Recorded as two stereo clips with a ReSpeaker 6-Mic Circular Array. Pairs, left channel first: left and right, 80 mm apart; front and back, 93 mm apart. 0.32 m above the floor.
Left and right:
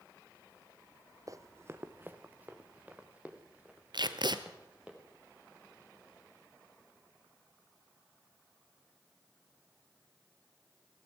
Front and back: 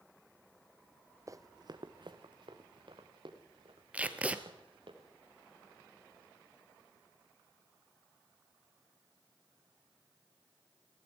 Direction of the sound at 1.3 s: 130° right.